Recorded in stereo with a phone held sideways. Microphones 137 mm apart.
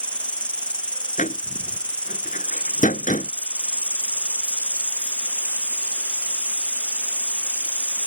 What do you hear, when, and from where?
0.0 s an insect: 10° left (ahead or behind)
1.2 s a door slam: 70° left (ahead or behind)